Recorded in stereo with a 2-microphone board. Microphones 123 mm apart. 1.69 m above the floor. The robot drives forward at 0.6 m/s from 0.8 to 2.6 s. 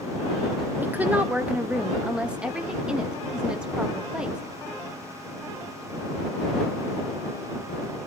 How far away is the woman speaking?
About 1.0 m.